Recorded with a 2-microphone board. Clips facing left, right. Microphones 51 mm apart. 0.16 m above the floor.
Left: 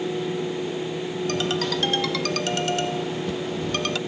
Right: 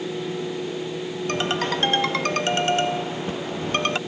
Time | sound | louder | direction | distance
1.3 | a ringtone | right 2 dB | 35° right (ahead or behind) | ?